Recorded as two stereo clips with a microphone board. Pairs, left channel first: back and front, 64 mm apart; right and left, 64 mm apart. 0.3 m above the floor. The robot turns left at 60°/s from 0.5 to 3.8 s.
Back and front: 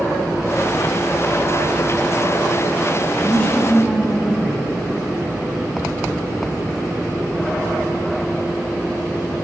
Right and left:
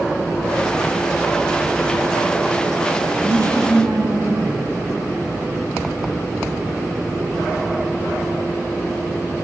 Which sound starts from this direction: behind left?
A woman speaking, at 3.2 s.